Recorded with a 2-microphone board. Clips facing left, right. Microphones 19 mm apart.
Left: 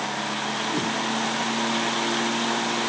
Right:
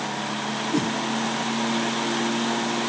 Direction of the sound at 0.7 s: 70° right (ahead or behind).